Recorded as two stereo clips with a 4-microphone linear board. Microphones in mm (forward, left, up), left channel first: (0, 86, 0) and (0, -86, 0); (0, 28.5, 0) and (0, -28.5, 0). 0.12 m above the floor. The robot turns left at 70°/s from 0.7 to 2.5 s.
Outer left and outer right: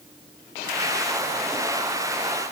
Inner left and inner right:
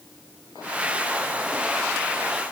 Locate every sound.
Only background noise.